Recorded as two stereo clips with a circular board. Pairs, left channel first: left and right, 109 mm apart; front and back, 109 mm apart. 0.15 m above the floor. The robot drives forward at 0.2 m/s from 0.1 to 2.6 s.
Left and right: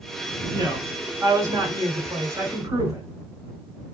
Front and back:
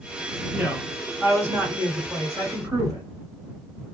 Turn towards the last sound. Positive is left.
turn(degrees=-140)